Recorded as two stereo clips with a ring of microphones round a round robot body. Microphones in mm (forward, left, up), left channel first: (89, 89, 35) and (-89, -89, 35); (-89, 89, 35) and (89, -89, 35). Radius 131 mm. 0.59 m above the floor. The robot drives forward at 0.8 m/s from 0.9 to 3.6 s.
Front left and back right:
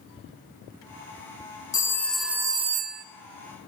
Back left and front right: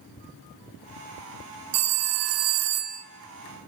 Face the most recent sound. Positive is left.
turn(degrees=-135)